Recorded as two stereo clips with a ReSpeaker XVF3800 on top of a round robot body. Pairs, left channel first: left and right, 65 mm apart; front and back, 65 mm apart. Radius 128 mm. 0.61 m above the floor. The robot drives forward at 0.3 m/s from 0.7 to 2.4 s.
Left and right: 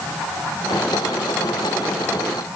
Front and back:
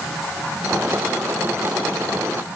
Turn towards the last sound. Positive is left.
No sound to turn to.